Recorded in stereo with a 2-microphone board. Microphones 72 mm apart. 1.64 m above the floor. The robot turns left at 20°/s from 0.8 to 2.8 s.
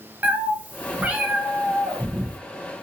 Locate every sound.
0.2 s a cat meowing: 20° right (ahead or behind), 0.9 m